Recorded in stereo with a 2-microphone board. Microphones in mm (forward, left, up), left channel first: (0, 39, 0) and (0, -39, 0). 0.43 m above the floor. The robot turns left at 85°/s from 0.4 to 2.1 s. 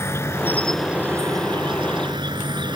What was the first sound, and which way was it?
An insect, 35° left.